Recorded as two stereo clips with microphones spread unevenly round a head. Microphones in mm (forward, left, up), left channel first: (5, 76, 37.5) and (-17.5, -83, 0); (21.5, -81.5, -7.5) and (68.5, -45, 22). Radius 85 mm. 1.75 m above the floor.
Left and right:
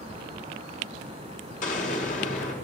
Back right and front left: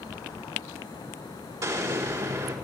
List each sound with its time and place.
1.6 s an explosion: 40° left, 4.5 m